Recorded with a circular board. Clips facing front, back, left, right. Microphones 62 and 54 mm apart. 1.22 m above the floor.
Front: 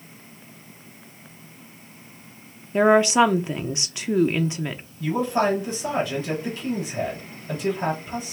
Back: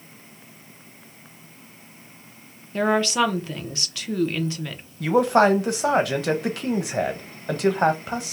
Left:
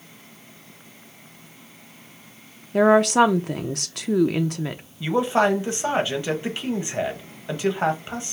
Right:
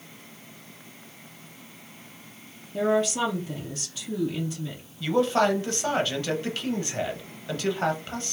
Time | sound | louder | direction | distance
2.7 | a woman speaking | front 5 dB, left 8 dB | 70° left | 0.5 m
5.0 | a man speaking | back 5 dB, left 2 dB | 160° left | 1.1 m